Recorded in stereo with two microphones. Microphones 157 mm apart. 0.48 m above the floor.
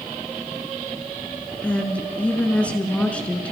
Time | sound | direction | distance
1.6 | a woman speaking | 10° left (ahead or behind) | 5 m